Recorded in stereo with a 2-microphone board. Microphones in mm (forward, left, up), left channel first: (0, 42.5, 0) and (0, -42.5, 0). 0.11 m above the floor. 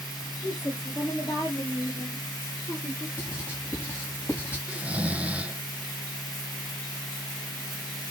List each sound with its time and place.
0.4 s a woman speaking: 60° left (ahead or behind), 5 m; by 3.1 s 50° left (ahead or behind), 6 m
3.2 s writing: 30° left (ahead or behind), 6 m
4.7 s snoring: 15° right (ahead or behind), 0.9 m